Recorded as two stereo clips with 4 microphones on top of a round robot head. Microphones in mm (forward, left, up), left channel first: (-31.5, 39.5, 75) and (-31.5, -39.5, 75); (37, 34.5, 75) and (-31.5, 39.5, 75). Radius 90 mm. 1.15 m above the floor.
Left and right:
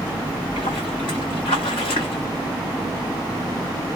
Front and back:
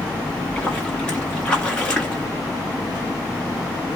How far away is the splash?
About 1.0 m.